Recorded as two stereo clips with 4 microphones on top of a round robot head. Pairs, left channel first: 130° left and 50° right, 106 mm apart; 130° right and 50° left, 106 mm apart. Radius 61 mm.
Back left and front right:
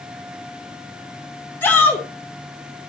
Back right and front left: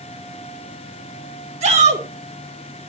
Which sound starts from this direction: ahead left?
A shout, at 1.6 s.